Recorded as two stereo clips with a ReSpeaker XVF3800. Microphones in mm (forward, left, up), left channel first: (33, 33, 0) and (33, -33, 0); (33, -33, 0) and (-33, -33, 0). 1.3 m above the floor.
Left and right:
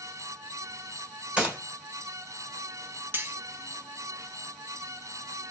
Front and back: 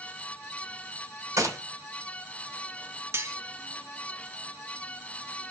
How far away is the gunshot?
About 1.7 m.